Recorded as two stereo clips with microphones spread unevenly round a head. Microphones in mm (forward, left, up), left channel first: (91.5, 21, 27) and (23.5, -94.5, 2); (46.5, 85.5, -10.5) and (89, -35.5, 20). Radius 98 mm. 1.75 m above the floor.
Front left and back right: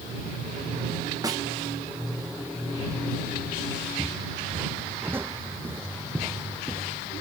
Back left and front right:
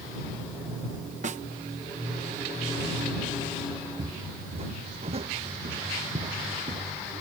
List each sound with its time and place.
1.2 s a snare drum: 55° right
4.0 s footsteps: 45° right